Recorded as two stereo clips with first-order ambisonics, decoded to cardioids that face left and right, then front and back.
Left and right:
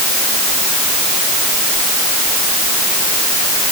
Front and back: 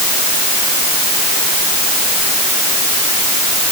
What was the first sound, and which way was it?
Only background noise.